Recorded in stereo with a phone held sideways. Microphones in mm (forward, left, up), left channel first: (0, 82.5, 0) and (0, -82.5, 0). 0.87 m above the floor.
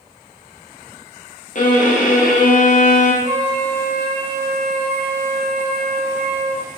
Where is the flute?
45° right (ahead or behind), 0.6 m.